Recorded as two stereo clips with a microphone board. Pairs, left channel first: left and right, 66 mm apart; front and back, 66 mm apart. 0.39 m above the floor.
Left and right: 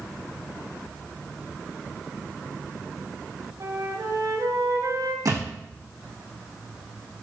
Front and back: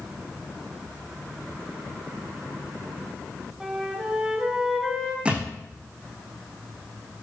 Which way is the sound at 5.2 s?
110° right.